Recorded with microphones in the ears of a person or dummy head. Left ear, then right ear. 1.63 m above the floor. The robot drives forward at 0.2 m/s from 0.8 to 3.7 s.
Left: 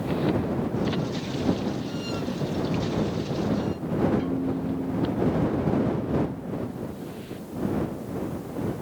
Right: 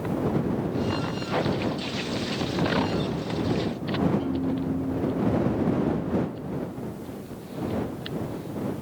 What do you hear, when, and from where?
4.2 s a piano: 55° left (ahead or behind), 2.5 m